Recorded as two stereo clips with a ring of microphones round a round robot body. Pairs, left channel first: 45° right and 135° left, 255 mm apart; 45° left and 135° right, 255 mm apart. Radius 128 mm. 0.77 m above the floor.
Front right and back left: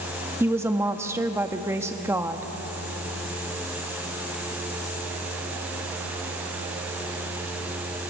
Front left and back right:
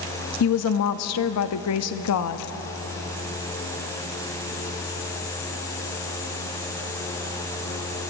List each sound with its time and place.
0.4 s a woman speaking: 55° left, 0.8 m